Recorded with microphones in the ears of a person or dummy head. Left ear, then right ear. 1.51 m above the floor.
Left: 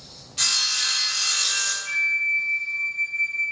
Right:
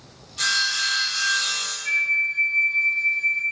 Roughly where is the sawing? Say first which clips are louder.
Even; left.